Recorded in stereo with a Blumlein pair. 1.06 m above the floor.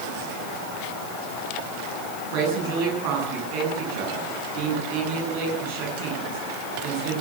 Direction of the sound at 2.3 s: 45° right.